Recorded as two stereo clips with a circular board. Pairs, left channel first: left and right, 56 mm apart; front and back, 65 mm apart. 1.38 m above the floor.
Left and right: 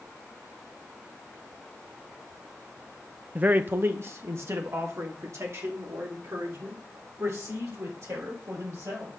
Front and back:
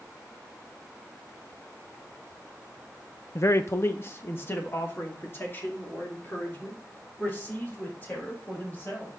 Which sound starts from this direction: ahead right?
A man speaking, at 3.4 s.